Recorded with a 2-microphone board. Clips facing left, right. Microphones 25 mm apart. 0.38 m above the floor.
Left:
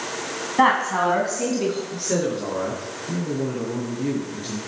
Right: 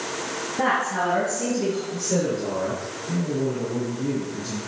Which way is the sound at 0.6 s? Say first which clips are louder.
Left 5 dB; 60° left (ahead or behind).